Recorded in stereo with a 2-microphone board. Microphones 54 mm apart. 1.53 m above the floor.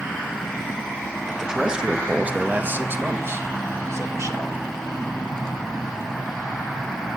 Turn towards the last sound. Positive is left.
turn(degrees=-75)  # may be behind; listen again after turning